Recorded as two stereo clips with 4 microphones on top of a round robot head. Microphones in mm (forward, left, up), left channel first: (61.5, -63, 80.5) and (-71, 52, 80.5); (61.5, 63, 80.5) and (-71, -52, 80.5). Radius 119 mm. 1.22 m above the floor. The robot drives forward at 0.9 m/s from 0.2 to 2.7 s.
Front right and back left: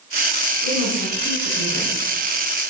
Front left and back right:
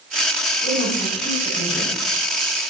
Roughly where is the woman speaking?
Ahead right.